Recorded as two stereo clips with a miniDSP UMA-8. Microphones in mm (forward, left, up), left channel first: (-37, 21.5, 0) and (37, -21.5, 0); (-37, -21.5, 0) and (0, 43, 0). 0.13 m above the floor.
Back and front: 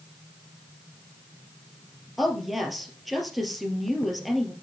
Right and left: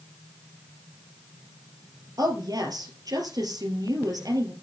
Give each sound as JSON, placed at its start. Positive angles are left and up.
{"t": 2.2, "sound": "a woman speaking", "azimuth_deg": 60, "distance_m": 2.5}